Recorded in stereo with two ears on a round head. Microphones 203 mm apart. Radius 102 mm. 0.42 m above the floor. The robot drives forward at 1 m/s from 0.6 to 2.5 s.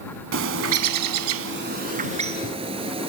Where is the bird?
60° right (ahead or behind), 0.8 m; by 3.1 s 25° right (ahead or behind), 1.6 m.